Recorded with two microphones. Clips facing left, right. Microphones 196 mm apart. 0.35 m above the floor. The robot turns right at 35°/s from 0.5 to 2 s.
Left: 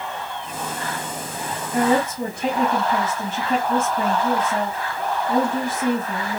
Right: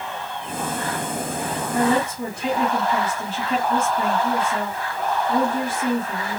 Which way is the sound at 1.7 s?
60° left (ahead or behind).